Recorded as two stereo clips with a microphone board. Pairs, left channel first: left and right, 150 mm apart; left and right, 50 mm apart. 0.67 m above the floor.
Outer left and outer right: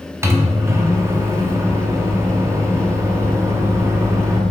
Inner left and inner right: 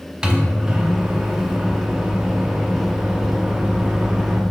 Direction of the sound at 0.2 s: 20° right (ahead or behind).